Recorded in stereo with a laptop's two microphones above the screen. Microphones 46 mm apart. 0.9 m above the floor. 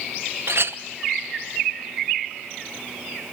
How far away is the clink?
About 0.7 m.